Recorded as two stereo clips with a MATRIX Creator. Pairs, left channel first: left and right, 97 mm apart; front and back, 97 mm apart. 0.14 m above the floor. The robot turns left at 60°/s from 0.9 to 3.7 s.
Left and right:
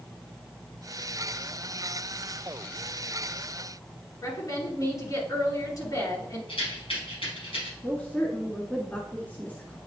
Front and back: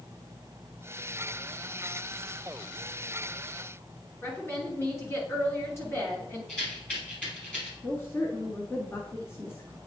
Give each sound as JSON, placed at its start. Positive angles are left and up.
{"t": 4.2, "sound": "a woman speaking", "azimuth_deg": 50, "distance_m": 2.5}
{"t": 6.5, "sound": "a rattle", "azimuth_deg": 80, "distance_m": 3.5}
{"t": 7.8, "sound": "a woman speaking", "azimuth_deg": 35, "distance_m": 1.2}